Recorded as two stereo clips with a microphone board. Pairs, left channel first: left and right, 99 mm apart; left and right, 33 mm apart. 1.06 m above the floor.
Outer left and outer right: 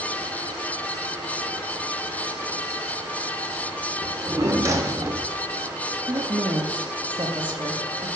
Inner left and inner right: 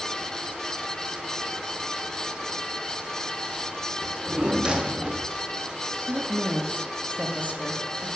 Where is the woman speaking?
55° right (ahead or behind), 1.2 m.